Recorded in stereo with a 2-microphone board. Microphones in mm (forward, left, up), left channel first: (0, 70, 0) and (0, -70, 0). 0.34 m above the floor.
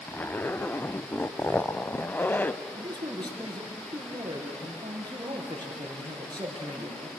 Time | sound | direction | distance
0.1 | a zipper | 15° left (ahead or behind) | 0.5 m
2.7 | a man speaking | 30° right (ahead or behind) | 4.5 m